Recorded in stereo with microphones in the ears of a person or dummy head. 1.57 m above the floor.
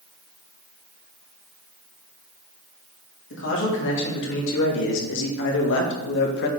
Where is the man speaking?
75° left (ahead or behind), 3 m; by 6.5 s 65° left (ahead or behind), 1.3 m.